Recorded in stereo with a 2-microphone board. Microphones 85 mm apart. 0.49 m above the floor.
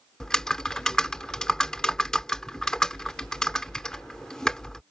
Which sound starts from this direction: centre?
Typing on a keyboard, at 0.2 s.